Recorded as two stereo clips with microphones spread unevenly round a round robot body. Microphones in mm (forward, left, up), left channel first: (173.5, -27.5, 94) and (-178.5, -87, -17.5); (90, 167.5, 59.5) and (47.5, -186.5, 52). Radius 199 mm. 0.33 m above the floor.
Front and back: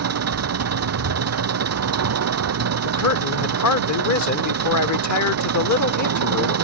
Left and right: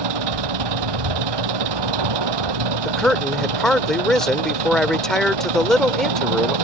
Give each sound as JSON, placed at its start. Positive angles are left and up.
{"t": 0.0, "sound": "an engine running", "azimuth_deg": -125}
{"t": 2.9, "sound": "a man speaking", "azimuth_deg": -5}